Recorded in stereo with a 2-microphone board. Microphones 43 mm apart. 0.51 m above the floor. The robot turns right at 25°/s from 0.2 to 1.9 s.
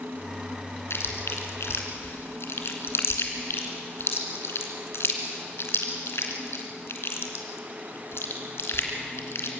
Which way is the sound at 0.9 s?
75° left (ahead or behind).